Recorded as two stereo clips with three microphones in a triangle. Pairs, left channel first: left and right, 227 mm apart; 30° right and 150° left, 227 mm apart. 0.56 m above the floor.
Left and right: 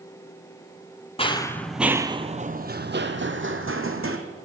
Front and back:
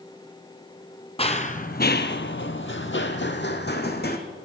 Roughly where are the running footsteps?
Ahead left.